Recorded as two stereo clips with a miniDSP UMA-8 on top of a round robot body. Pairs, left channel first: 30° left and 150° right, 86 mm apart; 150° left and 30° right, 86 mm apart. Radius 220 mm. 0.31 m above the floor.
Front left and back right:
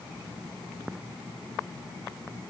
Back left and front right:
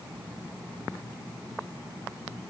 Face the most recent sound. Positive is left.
No sound to turn to.